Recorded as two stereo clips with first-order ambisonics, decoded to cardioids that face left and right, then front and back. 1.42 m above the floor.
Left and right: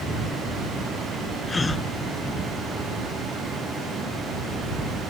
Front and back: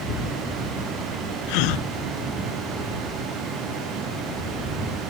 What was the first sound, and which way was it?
A gasp, 10° left.